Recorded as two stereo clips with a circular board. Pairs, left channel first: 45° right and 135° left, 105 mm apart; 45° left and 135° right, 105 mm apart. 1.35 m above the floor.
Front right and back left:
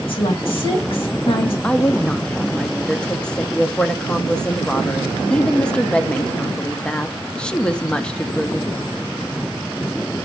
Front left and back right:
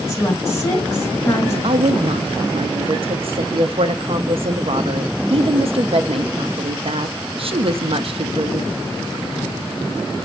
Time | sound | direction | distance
0.1 | a woman speaking | 20° right | 2.5 m
1.6 | a woman speaking | 125° right | 0.5 m